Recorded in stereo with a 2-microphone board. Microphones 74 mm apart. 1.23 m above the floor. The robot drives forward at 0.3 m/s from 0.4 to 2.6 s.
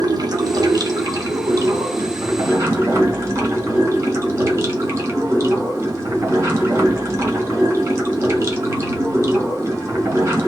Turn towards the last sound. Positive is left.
turn(degrees=-40)  # may be behind; listen again after turning